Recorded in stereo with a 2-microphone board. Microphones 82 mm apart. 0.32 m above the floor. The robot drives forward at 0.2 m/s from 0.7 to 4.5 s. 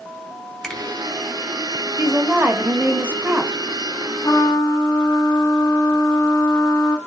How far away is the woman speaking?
About 0.9 m.